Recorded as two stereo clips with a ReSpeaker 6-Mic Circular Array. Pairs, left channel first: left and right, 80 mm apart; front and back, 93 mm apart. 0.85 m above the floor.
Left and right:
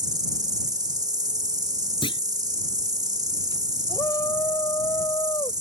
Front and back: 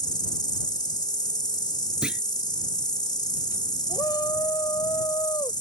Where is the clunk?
100° left.